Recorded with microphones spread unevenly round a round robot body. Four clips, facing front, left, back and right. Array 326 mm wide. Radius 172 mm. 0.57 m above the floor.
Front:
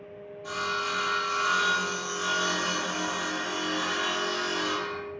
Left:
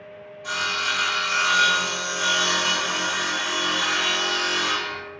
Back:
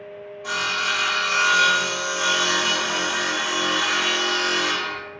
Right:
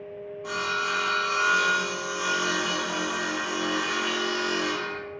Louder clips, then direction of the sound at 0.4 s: Left 1 dB, back 4 dB; 160° right.